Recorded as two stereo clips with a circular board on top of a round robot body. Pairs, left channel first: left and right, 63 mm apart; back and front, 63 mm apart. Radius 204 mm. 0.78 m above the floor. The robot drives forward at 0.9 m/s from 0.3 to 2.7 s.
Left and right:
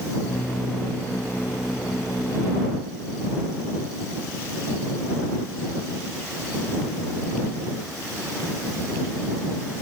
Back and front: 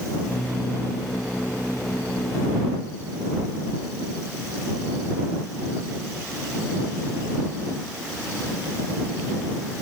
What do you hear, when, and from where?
Only background noise.